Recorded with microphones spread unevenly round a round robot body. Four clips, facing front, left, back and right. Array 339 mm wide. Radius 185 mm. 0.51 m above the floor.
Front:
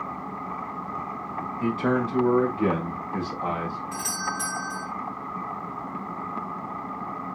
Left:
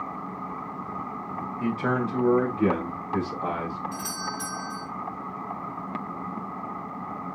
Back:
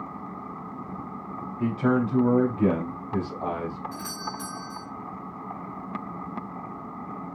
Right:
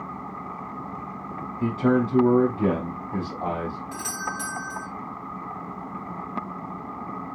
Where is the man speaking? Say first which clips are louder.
Right 5 dB, back 1 dB; 160° right, 4.5 m; by 3.8 s 140° right, 5 m.